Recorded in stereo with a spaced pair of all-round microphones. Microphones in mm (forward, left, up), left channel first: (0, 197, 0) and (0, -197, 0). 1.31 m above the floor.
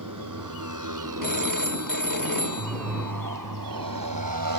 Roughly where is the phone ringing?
Left.